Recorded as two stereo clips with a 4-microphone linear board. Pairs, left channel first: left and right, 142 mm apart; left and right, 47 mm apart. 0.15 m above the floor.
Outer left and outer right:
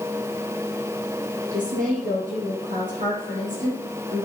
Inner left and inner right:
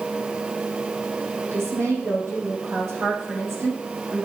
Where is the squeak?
No squeak in this recording.